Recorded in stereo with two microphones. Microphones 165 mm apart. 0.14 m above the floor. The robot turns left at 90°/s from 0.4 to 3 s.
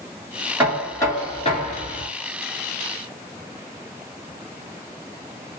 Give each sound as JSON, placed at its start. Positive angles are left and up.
{"t": 0.6, "sound": "knocking", "azimuth_deg": -165, "distance_m": 1.7}